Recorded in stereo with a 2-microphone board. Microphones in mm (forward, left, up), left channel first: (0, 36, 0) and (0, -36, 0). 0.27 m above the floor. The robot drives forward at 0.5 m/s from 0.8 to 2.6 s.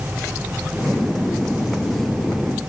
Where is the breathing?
I don't hear breathing.